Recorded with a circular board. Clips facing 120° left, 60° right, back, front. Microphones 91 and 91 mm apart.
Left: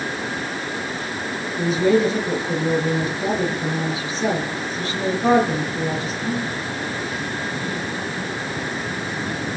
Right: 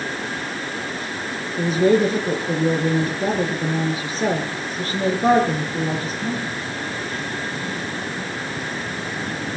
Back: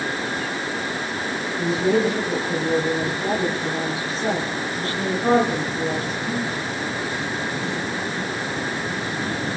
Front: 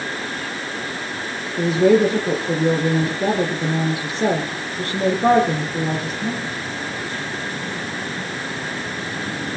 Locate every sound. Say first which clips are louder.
1.6 s a woman speaking: right 1 dB, front 6 dB; 15° right, 5.5 m